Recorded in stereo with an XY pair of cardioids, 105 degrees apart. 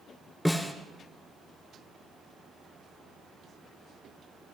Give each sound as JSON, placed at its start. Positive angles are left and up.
{"t": 0.5, "sound": "a snare drum", "azimuth_deg": 10, "distance_m": 2.5}